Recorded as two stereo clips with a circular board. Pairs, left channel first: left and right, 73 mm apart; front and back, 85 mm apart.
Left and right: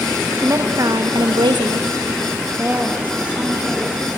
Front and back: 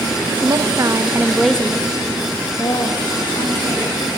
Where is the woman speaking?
145° right, 1.2 m; by 4.1 s 15° right, 2.5 m.